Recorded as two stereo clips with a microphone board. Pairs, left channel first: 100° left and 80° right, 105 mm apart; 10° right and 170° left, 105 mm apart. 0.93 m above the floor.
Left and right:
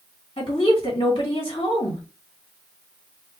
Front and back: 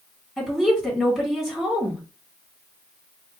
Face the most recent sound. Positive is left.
turn(degrees=80)